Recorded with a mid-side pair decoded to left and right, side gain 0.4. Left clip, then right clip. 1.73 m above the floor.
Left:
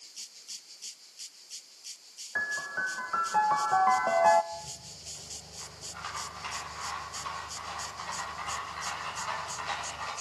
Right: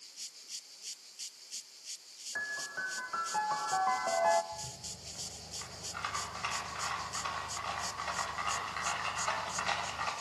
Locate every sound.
2.4 s a piano: 50° left, 0.9 m
4.5 s a rattle: 45° right, 8.5 m